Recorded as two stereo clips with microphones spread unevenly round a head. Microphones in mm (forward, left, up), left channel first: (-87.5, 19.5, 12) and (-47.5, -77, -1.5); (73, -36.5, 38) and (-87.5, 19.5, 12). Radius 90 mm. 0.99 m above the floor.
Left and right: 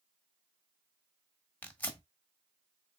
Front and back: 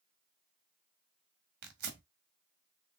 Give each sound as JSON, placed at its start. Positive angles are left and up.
{"t": 1.6, "sound": "tearing paper", "azimuth_deg": -175, "distance_m": 1.6}